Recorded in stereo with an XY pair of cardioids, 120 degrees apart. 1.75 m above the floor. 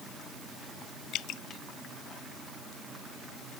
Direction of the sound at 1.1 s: 70° left.